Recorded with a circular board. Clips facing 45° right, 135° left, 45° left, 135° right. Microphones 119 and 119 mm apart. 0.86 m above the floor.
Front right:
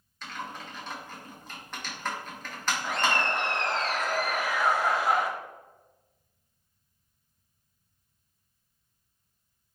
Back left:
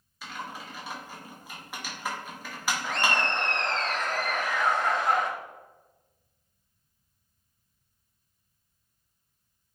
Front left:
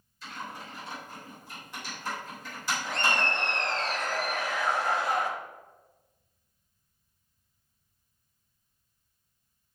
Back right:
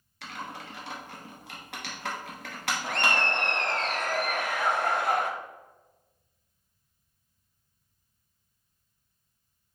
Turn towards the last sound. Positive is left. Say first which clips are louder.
# front right 1 dB, back right 1 dB
turn(degrees=-125)